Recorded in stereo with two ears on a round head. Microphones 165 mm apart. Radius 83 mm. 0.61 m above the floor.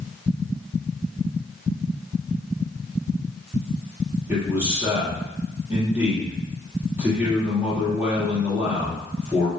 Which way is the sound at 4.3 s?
10° right (ahead or behind).